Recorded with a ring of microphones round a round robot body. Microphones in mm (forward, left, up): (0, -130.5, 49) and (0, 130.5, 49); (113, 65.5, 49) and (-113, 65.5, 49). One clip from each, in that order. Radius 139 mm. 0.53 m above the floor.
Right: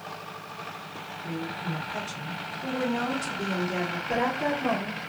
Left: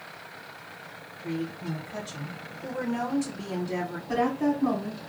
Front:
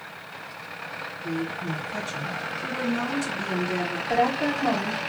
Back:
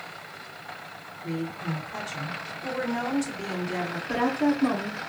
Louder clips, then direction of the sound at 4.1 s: Left 1 dB, front 2 dB; 140° left.